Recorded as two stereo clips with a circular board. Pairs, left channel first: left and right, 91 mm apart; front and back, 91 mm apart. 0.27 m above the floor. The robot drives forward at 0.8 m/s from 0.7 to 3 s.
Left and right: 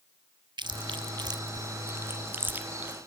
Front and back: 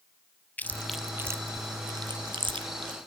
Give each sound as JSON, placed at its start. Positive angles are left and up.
{"t": 0.6, "sound": "chewing", "azimuth_deg": -70, "distance_m": 0.6}